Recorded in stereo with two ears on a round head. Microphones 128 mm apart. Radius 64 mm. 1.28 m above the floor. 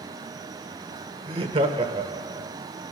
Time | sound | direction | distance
1.3 | laughter | 40° right (ahead or behind) | 1.1 m